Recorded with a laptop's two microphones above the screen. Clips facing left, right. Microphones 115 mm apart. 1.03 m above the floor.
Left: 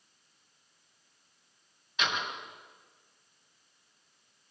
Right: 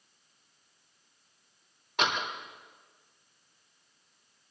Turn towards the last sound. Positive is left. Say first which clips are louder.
# right 3 dB
turn(degrees=-65)  # may be behind; listen again after turning